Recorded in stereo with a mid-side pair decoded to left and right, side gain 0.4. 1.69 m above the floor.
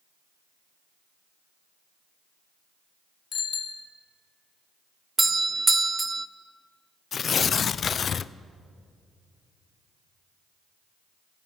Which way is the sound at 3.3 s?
60° left.